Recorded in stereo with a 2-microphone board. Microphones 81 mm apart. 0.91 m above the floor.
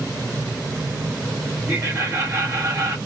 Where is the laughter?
40° right (ahead or behind), 1.6 m.